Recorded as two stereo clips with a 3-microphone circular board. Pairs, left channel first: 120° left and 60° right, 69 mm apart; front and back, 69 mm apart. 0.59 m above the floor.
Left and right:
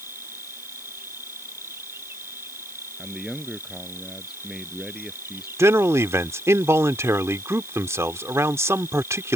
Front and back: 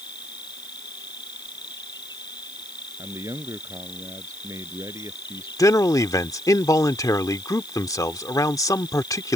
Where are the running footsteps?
I don't hear running footsteps.